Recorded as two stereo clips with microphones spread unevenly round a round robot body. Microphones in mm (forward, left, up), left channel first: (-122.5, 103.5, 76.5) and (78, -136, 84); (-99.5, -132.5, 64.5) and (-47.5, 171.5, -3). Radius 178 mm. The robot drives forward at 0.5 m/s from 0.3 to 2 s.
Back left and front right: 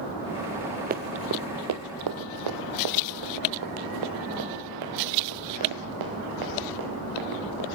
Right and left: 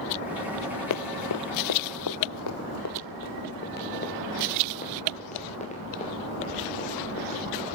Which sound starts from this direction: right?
Running footsteps, at 0.9 s.